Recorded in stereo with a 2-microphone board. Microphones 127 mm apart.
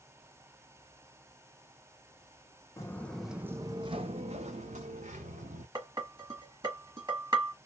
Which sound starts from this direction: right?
Dishes clattering, at 5.8 s.